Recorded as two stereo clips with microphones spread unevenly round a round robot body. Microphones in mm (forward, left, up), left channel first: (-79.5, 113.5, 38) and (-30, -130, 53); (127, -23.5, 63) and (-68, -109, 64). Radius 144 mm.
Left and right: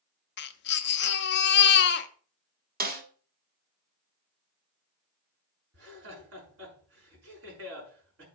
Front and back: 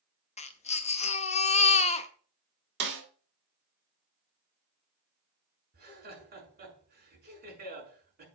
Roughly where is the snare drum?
Behind right.